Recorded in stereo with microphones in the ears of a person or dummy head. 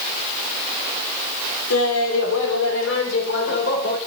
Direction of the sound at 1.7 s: 85° left.